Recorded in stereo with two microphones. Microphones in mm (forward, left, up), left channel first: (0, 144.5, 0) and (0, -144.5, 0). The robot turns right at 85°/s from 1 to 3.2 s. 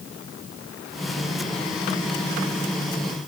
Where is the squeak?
No squeak in this recording.